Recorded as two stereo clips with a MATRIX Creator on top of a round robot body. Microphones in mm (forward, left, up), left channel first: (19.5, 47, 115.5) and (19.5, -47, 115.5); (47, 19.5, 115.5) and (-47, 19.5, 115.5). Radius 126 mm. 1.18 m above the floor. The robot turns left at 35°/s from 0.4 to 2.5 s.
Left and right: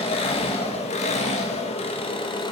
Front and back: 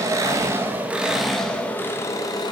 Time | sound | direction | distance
0.0 | an engine running | 120° left | 0.8 m